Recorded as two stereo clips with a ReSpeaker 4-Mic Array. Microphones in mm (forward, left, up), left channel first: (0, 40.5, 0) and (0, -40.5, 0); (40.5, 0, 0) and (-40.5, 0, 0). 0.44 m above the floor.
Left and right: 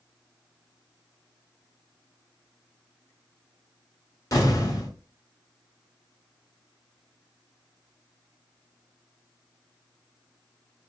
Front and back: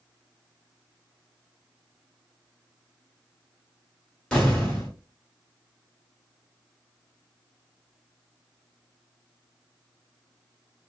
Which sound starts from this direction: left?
An explosion, at 4.3 s.